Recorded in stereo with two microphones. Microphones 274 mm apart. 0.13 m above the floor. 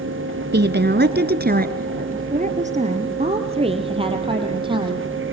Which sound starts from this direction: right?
A woman speaking, at 0.5 s.